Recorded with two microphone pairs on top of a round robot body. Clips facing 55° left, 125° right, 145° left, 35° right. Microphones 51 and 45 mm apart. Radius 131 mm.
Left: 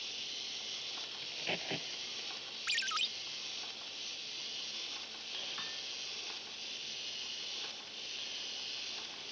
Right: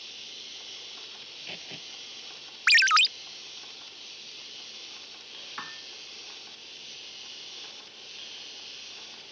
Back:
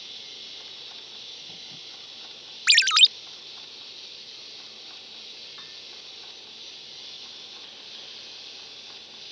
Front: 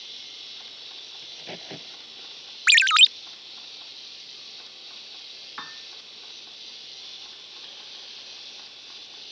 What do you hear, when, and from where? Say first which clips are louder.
1.2 s a crack: left 6 dB, front 4 dB; 10° right
2.7 s a ringtone: right 17 dB, front 3 dB; 105° right
5.6 s a piano: right 5 dB, front 6 dB; 75° right